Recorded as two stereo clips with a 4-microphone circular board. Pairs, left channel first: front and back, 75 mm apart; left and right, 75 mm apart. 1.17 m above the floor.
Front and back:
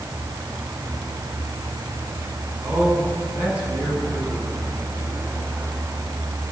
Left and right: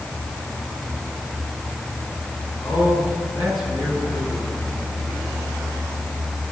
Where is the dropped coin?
No dropped coin in this recording.